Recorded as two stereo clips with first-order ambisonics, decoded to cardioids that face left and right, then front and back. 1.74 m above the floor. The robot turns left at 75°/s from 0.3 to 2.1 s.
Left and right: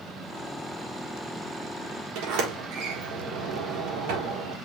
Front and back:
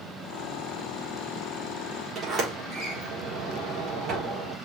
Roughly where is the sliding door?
Right.